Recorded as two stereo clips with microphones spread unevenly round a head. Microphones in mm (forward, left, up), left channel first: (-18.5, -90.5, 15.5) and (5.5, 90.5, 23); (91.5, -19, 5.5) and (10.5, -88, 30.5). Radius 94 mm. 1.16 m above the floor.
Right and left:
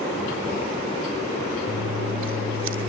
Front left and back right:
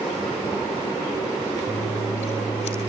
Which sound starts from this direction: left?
Scissors, at 1.7 s.